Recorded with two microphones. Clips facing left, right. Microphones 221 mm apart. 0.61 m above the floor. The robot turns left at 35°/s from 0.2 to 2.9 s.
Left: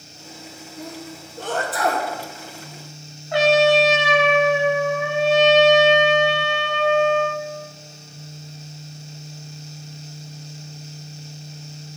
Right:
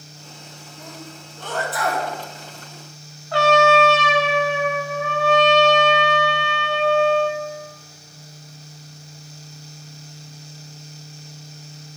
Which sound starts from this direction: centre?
A trumpet, at 3.3 s.